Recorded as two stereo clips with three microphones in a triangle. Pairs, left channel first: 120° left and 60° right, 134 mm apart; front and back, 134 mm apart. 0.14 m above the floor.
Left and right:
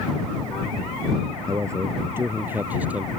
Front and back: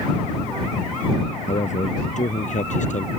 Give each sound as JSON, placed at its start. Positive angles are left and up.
{"t": 1.5, "sound": "a man speaking", "azimuth_deg": 0}